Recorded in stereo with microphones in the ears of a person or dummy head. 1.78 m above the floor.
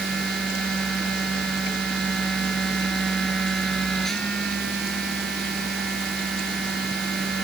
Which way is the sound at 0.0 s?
Centre (ahead or behind).